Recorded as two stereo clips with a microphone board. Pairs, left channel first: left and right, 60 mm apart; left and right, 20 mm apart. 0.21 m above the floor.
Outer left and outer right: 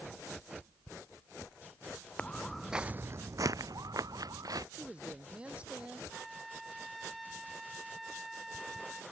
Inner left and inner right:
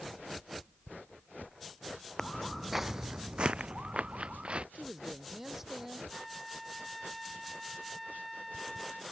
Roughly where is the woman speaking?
Centre.